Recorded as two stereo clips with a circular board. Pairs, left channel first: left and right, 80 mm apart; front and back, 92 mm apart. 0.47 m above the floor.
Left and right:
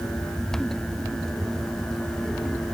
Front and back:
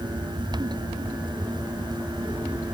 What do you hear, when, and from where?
Only background noise.